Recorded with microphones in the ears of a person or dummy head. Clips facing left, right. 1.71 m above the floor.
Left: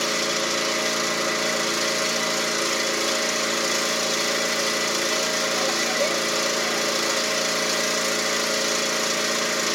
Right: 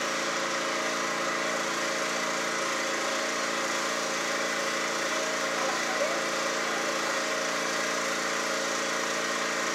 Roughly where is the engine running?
Left.